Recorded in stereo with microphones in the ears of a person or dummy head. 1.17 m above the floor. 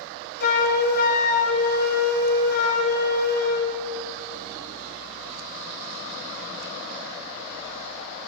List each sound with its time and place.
0.4 s a flute: 55° left (ahead or behind), 0.9 m